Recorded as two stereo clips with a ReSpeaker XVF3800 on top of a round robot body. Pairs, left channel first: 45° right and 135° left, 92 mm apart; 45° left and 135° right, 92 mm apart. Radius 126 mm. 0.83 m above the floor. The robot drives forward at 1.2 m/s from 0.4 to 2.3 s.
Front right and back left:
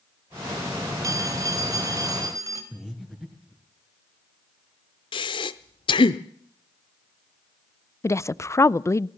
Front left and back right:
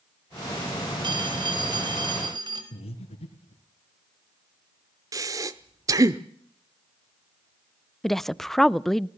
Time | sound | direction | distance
1.0 | a phone ringing | 170° right | 2.5 m
2.7 | breathing | 50° left | 3.5 m
5.1 | breathing | 80° right | 0.6 m
8.0 | a woman speaking | 40° right | 0.8 m